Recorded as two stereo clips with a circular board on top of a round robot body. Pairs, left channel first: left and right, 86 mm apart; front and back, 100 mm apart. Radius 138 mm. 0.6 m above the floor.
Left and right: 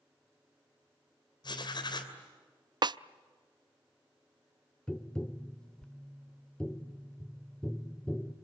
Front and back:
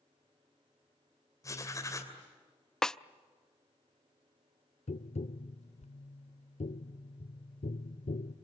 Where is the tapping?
10° left, 0.6 m.